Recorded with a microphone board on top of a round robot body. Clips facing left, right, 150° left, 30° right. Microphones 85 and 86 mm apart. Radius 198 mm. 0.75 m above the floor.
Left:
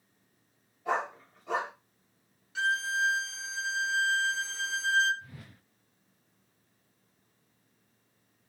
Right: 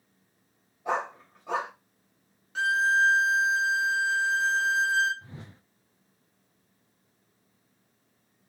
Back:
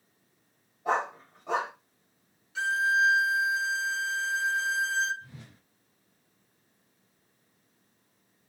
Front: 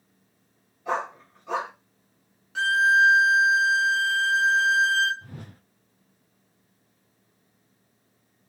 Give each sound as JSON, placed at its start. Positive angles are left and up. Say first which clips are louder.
{"t": 0.8, "sound": "a dog barking", "louder": "right 1 dB, even", "azimuth_deg": -155, "distance_m": 1.7}
{"t": 2.5, "sound": "a violin", "louder": "right 6 dB, front 6 dB", "azimuth_deg": -50, "distance_m": 0.8}
{"t": 5.2, "sound": "a whoosh", "louder": "right 4 dB, front 6 dB", "azimuth_deg": -35, "distance_m": 0.5}